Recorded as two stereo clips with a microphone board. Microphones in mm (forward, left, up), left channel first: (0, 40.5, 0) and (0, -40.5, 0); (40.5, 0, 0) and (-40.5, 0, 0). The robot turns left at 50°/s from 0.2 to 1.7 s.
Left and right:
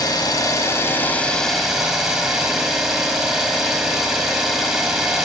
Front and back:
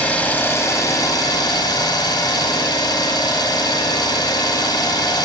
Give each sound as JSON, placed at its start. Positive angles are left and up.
{"t": 0.0, "sound": "an engine running", "azimuth_deg": 70, "distance_m": 1.9}